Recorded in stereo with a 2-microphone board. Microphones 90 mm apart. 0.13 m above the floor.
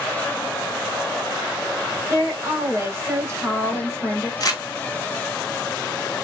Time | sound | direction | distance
2.1 | a woman speaking | 30° right (ahead or behind) | 1.5 m
4.4 | crumpling | 45° left (ahead or behind) | 1.0 m